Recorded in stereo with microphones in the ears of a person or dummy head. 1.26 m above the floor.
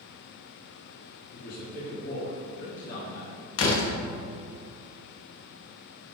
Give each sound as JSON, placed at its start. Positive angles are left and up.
{"t": 1.3, "sound": "a man speaking", "side_deg": 55, "distance_m": 2.5}
{"t": 3.6, "sound": "a door slam", "side_deg": 75, "distance_m": 1.4}